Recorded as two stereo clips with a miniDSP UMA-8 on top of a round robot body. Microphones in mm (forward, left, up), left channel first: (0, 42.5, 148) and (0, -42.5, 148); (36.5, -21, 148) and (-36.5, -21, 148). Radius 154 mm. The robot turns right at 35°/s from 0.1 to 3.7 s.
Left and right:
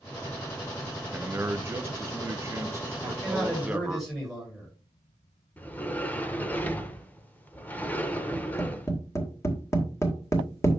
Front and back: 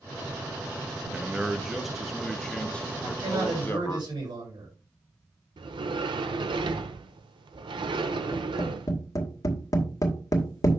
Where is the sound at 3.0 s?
160° left, 6.5 m; by 4.7 s 175° right, 6.5 m.